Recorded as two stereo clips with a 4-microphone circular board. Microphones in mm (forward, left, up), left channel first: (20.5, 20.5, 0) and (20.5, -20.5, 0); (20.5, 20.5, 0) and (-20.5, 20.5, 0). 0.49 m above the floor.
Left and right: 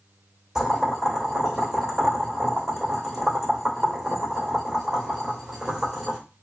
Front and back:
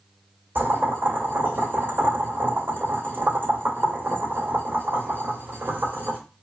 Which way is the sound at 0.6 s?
165° right.